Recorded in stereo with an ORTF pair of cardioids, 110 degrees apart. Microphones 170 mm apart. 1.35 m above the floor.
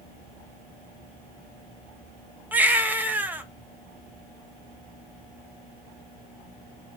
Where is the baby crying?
10° right, 1.2 m.